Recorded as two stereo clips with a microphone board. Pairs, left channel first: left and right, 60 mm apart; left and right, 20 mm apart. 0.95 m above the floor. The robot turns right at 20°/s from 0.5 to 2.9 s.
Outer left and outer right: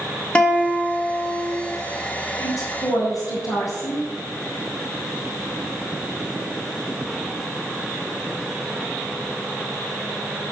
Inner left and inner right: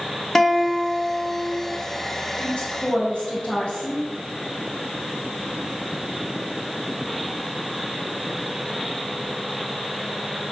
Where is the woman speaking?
65° left (ahead or behind), 5.5 m; by 4.0 s 75° left (ahead or behind), 5.5 m.